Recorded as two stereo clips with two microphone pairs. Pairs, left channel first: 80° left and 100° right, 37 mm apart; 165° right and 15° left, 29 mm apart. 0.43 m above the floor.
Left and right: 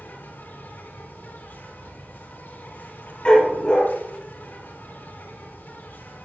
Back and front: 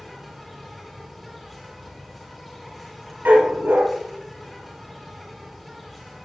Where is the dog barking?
10° left, 3 m.